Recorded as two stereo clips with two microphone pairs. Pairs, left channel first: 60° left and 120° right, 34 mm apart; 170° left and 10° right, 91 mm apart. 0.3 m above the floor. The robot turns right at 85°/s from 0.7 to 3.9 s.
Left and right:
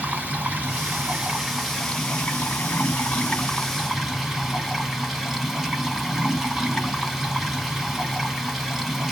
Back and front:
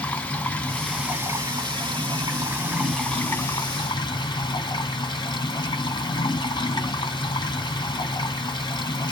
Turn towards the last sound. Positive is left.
turn(degrees=155)